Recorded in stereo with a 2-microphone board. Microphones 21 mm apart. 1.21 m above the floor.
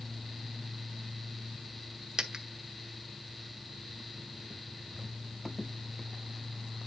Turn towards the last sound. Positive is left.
turn(degrees=-35)  # may be behind; listen again after turning